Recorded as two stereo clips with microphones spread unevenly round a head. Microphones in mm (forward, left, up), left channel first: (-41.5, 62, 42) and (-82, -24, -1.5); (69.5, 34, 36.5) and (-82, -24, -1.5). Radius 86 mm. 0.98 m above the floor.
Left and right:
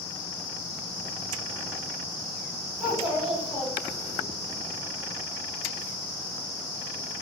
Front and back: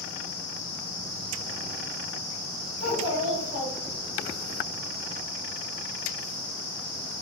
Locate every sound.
2.8 s a child speaking: 160° left, 1.8 m; by 4.2 s straight behind, 0.7 m